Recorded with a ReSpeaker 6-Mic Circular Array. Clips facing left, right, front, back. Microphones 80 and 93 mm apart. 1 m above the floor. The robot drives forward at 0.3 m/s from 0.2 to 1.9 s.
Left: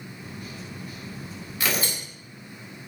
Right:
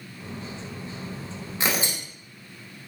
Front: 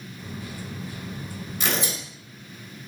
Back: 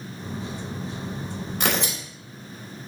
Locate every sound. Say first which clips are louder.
1.6 s tearing paper: right 1 dB, back 2 dB; 150° right, 1.6 m; by 2.0 s 155° right, 1.6 m